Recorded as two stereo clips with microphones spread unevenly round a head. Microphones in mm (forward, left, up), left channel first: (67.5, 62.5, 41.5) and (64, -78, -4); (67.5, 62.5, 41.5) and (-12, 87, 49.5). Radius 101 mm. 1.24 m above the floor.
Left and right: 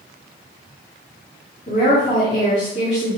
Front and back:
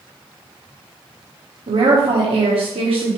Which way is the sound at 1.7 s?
150° left.